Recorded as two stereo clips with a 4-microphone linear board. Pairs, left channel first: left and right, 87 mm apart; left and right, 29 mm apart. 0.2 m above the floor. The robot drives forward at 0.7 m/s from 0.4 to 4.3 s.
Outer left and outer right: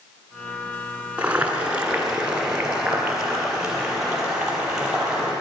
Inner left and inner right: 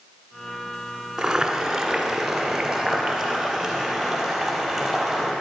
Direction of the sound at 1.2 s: 15° right (ahead or behind).